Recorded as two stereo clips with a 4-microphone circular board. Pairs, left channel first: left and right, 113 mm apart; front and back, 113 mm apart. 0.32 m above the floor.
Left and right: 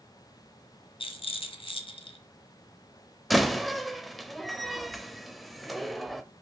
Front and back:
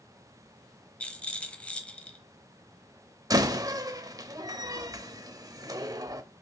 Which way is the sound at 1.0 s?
75° left.